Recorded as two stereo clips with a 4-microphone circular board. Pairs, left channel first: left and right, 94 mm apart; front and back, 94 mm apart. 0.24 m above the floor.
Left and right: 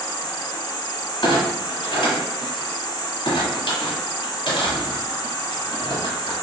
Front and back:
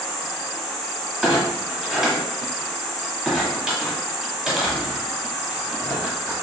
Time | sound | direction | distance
0.0 | an insect | 100° left | 1.0 m
1.2 | a clunk | 95° left | 1.5 m